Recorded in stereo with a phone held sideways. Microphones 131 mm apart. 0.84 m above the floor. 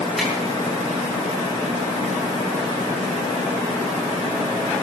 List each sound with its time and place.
0.2 s a finger snap: centre (ahead or behind), 7 m